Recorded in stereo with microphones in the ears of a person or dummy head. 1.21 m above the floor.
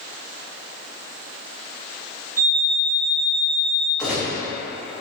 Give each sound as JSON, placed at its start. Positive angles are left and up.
{"t": 2.4, "sound": "an alarm clock", "side_deg": -50, "distance_m": 0.8}
{"t": 4.0, "sound": "a gunshot", "side_deg": -5, "distance_m": 0.9}